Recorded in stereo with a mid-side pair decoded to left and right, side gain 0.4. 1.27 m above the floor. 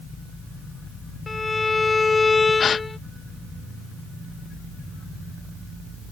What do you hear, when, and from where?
1.3 s a violin: 30° left
2.6 s a gasp: 55° left